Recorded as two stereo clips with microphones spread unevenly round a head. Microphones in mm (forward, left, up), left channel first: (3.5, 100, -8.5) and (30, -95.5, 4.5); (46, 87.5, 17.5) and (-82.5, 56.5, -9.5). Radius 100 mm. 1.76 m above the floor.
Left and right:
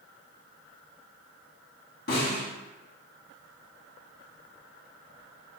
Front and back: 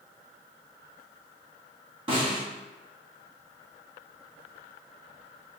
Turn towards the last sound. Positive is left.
turn(degrees=140)